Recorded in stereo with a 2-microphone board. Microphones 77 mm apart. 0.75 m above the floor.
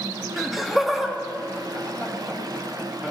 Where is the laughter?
Centre (ahead or behind), 0.9 m; by 3.1 s 5° right (ahead or behind), 2.5 m.